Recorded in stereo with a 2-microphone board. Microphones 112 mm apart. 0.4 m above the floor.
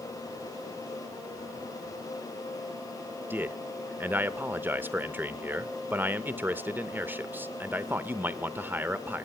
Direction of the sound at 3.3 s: 20° right (ahead or behind).